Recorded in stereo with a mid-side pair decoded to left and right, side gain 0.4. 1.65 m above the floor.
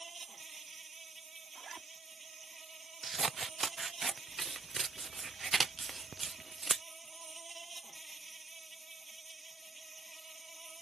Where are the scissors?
40° right.